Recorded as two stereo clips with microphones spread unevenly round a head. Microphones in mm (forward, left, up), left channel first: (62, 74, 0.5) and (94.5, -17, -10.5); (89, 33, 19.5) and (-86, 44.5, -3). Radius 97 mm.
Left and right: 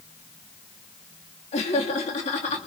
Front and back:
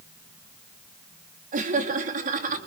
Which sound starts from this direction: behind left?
Laughter, at 1.5 s.